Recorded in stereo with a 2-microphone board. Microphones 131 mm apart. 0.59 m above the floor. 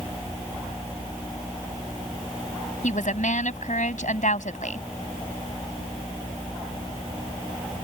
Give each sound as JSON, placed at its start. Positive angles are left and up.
{"t": 2.8, "sound": "a woman speaking", "side_deg": 75}